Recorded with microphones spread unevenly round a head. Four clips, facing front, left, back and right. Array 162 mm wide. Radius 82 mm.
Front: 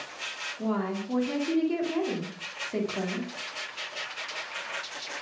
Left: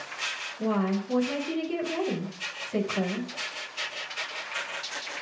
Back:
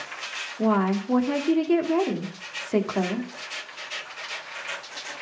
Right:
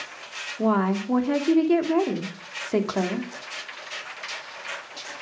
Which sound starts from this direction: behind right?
A woman speaking, at 0.6 s.